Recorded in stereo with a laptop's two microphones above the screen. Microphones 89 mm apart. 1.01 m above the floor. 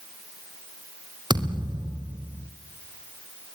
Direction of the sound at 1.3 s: 55° right (ahead or behind).